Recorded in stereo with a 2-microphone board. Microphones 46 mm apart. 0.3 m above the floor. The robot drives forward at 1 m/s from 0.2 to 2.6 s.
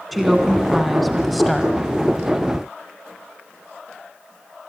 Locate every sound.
0.1 s a woman speaking: centre (ahead or behind), 3 m